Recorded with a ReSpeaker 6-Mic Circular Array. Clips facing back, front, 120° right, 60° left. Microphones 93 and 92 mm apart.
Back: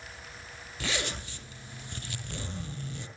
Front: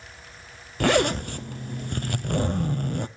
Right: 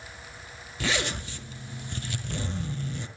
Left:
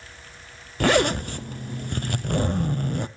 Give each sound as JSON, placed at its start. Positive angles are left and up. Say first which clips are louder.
{"t": 0.8, "sound": "a zipper", "louder": "front 14 dB, left 10 dB", "azimuth_deg": 30, "distance_m": 0.7}